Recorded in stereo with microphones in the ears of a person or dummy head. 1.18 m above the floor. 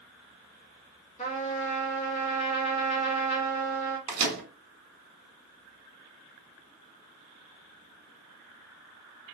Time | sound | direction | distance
1.2 | a trumpet | 35° left (ahead or behind) | 0.8 m
4.1 | a microwave | 35° right (ahead or behind) | 1.1 m